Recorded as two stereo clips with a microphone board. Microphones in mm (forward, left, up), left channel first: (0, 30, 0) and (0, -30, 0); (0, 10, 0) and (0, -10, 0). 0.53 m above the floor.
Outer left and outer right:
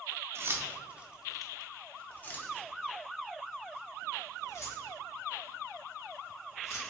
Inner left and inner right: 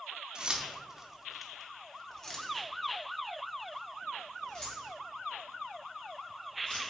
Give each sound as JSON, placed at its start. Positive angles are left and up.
{"t": 0.3, "sound": "keys jangling", "side_deg": -45, "distance_m": 0.7}